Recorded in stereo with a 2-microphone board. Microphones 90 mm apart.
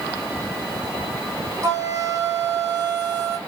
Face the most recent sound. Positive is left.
turn(degrees=-35)  # may be behind; listen again after turning